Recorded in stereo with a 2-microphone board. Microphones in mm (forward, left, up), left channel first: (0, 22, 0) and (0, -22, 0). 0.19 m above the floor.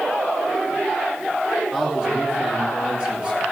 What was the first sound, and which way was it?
A man speaking, 15° right (ahead or behind).